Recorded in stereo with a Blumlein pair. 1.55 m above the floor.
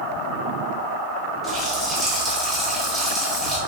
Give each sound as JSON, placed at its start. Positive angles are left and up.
{"t": 1.4, "sound": "a running tap", "azimuth_deg": -5, "distance_m": 1.5}